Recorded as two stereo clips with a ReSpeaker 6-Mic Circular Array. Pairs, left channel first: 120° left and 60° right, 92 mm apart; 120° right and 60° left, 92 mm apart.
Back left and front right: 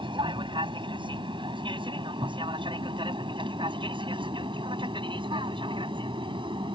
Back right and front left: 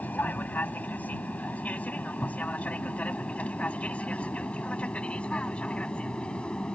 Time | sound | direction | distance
0.0 | an aircraft | 50° right | ?